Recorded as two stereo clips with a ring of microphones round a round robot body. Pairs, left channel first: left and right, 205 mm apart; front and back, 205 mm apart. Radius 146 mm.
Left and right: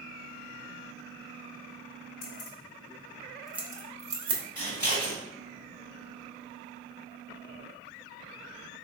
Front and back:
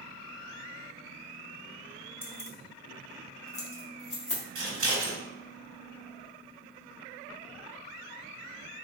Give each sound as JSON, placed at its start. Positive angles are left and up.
{"t": 2.2, "sound": "keys jangling", "azimuth_deg": 80, "distance_m": 1.0}
{"t": 4.5, "sound": "scissors", "azimuth_deg": 170, "distance_m": 1.6}